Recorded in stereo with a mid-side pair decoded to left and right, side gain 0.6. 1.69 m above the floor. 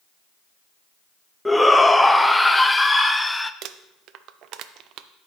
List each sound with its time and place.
1.4 s a shout: 10° left, 0.5 m
3.6 s crumpling: 60° right, 0.5 m